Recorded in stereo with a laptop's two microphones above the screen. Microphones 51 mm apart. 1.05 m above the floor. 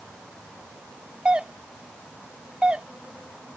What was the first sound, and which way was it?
A doorbell, 20° right (ahead or behind).